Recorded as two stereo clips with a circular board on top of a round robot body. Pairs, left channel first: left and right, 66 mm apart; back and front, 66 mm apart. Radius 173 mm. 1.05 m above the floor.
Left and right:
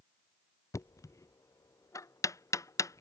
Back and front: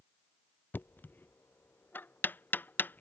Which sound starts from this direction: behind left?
Knocking, at 0.7 s.